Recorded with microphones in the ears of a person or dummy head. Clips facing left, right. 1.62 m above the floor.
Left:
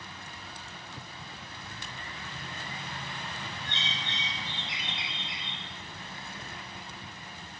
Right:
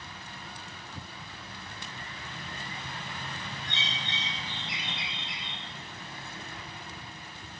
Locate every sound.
3.6 s a bird: 65° right (ahead or behind), 0.8 m